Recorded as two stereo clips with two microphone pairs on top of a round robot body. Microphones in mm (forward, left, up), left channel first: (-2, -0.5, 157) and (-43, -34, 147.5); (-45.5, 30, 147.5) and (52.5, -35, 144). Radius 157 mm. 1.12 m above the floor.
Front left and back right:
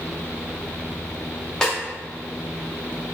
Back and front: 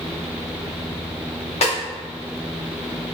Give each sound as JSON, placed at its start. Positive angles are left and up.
{"t": 1.6, "sound": "a snare drum", "azimuth_deg": 120, "distance_m": 0.7}